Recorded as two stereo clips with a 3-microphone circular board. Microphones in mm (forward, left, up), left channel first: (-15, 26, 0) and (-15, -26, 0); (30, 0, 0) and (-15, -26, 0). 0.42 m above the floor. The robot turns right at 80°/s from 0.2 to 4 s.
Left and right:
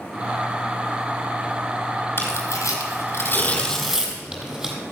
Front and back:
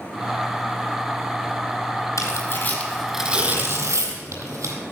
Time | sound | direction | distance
2.2 | tearing paper | 45° left | 3.5 m